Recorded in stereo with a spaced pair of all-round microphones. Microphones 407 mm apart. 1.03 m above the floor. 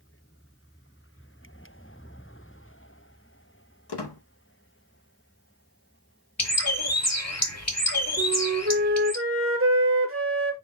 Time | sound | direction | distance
3.9 | a squeak | 75° left (ahead or behind) | 0.7 m
6.4 | a bird | 40° left (ahead or behind) | 1.0 m
8.2 | a flute | 30° right (ahead or behind) | 0.7 m